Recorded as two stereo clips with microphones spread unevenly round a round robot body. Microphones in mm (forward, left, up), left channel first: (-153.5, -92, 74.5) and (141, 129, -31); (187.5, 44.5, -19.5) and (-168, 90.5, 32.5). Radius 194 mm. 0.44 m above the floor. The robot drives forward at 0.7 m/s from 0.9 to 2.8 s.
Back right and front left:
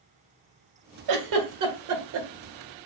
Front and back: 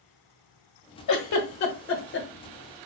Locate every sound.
1.1 s a giggle: 20° left, 1.6 m; by 2.3 s 40° left, 0.9 m